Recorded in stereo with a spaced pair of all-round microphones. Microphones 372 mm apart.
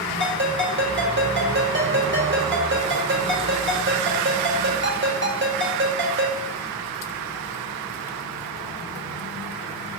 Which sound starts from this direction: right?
A ringtone, at 0.2 s.